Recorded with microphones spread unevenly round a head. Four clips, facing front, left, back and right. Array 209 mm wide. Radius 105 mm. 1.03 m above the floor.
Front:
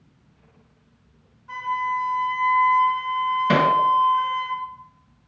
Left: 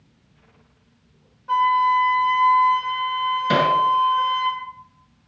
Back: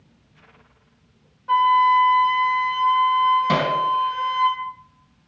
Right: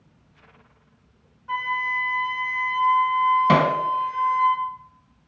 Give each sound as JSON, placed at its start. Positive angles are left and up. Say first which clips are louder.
{"t": 1.5, "sound": "a flute", "louder": "left 10 dB, back 10 dB", "azimuth_deg": 165, "distance_m": 5.0}
{"t": 3.5, "sound": "hammering", "louder": "even, front 3 dB", "azimuth_deg": -95, "distance_m": 3.0}